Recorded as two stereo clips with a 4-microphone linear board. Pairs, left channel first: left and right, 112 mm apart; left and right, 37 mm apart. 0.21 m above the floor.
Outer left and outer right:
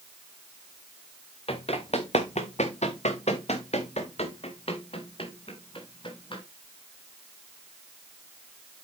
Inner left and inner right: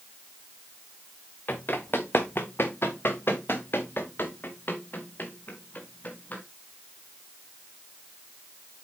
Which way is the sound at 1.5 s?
60° left (ahead or behind).